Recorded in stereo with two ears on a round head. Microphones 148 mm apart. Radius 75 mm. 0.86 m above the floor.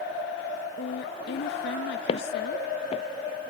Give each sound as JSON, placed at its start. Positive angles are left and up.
{"t": 0.8, "sound": "a woman speaking", "side_deg": 70}
{"t": 2.1, "sound": "footsteps", "side_deg": 35}